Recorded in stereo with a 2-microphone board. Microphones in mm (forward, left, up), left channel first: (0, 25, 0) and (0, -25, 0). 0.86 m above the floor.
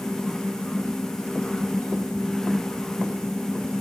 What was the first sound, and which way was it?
Only background noise.